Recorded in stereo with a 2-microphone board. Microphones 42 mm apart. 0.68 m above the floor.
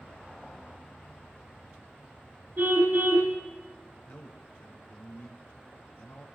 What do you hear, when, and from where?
2.6 s a car horn: 55° right (ahead or behind), 4.5 m
4.1 s a man speaking: 70° left (ahead or behind), 3 m